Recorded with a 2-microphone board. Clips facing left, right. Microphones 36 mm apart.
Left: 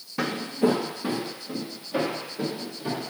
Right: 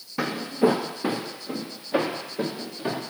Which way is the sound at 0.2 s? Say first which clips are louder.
Right 2 dB; centre (ahead or behind).